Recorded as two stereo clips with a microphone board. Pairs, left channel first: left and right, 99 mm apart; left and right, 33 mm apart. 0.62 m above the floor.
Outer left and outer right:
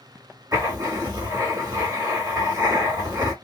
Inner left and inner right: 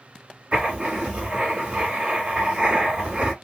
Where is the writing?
40° right (ahead or behind), 1.4 m.